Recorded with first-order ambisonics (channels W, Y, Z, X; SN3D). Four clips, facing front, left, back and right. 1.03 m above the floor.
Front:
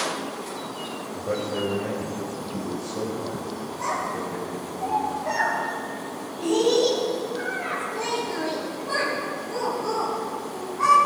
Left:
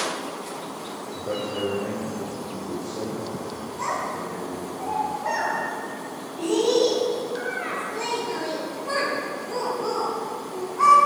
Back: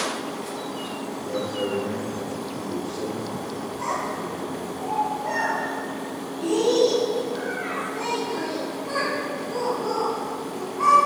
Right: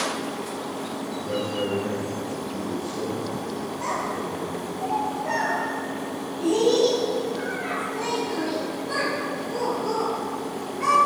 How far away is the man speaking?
About 4.5 m.